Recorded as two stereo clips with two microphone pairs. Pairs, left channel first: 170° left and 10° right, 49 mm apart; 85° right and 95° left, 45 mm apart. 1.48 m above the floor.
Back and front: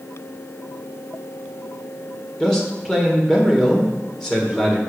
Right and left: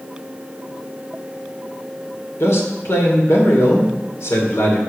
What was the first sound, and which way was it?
A man speaking, 115° right.